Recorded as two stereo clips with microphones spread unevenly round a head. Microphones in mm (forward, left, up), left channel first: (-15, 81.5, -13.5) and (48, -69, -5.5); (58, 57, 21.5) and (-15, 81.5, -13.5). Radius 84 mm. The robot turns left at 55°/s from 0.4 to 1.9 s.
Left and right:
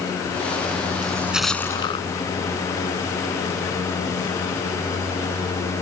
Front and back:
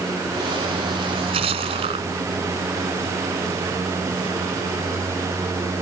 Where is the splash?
135° right; by 2.1 s straight behind.